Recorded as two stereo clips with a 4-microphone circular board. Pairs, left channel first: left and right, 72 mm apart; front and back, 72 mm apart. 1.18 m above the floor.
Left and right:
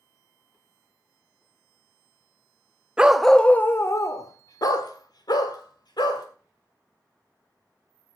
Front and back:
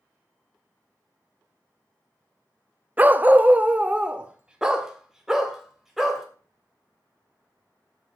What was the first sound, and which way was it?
A dog barking, 145° right.